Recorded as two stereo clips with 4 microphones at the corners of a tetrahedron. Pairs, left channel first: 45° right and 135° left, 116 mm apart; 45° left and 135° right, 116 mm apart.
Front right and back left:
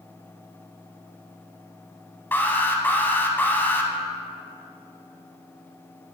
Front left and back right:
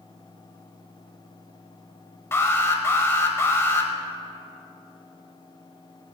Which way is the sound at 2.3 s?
5° left.